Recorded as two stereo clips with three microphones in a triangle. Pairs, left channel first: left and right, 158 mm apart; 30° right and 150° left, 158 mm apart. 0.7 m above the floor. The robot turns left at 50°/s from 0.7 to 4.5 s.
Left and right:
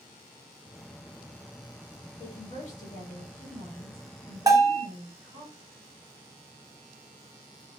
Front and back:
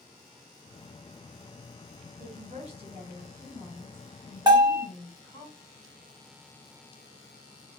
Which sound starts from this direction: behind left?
A woman speaking, at 2.2 s.